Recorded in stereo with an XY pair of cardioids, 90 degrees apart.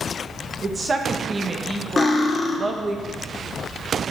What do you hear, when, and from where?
0.6 s a woman speaking: 35° right, 1.2 m
2.0 s cutlery clinking: 40° left, 1.2 m